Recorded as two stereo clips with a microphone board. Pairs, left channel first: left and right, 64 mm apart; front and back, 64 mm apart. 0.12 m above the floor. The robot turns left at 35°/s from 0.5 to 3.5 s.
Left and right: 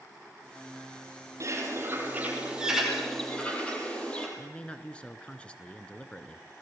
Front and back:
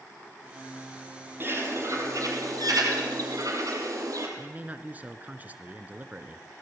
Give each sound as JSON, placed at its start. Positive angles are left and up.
{"t": 1.4, "sound": "a bird", "azimuth_deg": -125, "distance_m": 4.5}
{"t": 4.4, "sound": "a man speaking", "azimuth_deg": 145, "distance_m": 1.3}